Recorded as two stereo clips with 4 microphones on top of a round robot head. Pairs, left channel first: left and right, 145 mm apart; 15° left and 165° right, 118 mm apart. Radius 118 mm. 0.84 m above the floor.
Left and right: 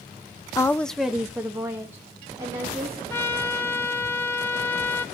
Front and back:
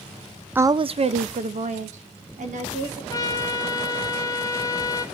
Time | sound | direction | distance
0.6 | a woman speaking | 130° left | 0.6 m
3.1 | a trumpet | 30° left | 0.6 m